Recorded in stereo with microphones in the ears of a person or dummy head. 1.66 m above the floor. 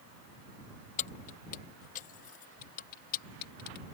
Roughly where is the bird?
No bird in this recording.